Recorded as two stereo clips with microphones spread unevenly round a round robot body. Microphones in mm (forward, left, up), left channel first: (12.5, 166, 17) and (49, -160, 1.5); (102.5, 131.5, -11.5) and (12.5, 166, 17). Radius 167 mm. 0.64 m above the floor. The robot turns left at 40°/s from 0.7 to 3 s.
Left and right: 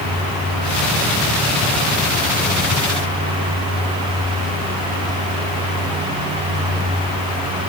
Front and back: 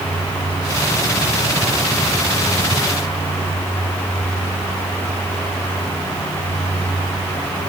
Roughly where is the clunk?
No clunk in this recording.